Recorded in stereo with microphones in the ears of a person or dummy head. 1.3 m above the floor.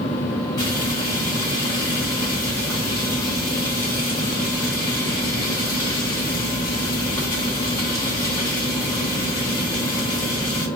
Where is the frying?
15° left (ahead or behind), 1.1 m.